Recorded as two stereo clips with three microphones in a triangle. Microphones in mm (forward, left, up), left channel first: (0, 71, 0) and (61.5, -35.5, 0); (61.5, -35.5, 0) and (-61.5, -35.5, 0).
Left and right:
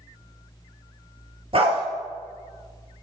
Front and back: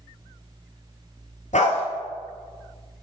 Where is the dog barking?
20° right, 1.7 m.